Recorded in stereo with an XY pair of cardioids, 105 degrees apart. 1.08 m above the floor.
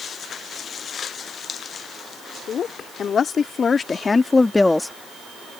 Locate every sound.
2.5 s a woman speaking: 55° left; by 4.9 s 5° left